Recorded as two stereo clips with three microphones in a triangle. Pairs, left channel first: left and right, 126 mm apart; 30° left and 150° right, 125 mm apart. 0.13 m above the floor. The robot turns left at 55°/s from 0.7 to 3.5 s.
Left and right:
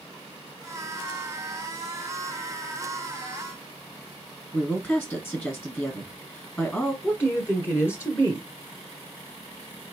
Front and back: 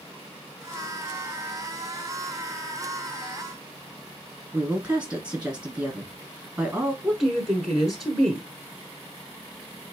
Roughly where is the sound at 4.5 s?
Behind left.